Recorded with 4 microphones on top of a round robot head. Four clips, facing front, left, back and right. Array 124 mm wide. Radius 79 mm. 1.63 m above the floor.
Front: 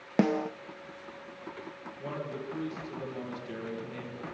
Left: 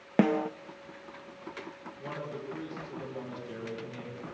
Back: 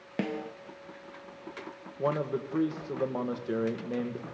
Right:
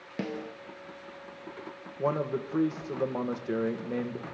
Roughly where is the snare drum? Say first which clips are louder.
Left 10 dB, front 7 dB; ahead left.